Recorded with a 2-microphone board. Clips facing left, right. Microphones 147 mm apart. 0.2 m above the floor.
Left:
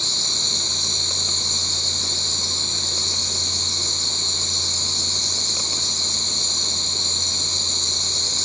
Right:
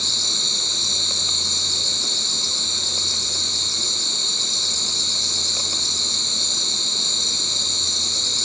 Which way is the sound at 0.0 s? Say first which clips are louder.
Even; 65° left (ahead or behind).